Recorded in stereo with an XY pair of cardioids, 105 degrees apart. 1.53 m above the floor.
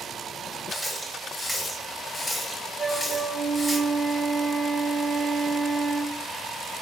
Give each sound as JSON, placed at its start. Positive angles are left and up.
{"t": 0.7, "sound": "a running tap", "azimuth_deg": 5, "distance_m": 1.5}
{"t": 2.8, "sound": "a flute", "azimuth_deg": -25, "distance_m": 0.6}